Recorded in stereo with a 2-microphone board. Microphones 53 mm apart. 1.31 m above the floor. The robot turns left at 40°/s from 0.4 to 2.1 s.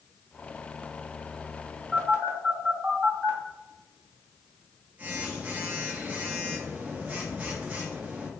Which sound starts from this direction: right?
A phone buzzing, at 1.9 s.